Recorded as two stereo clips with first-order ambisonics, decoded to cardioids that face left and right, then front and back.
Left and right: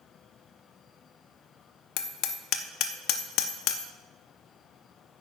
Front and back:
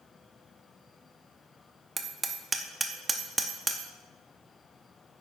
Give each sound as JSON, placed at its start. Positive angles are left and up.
{"t": 2.0, "sound": "hammering", "azimuth_deg": 105, "distance_m": 0.6}